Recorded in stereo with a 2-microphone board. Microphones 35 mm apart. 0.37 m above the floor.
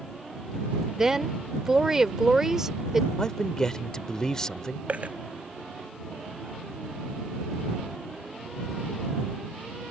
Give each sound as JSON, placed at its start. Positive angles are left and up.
{"t": 1.0, "sound": "a woman speaking", "side_deg": -15}
{"t": 3.2, "sound": "a man speaking", "side_deg": 20}
{"t": 4.9, "sound": "a dropped coin", "side_deg": -40}